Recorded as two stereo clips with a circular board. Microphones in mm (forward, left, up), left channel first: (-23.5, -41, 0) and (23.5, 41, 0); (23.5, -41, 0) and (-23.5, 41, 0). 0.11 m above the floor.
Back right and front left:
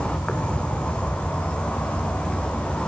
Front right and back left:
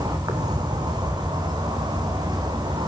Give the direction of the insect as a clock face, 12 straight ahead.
7 o'clock.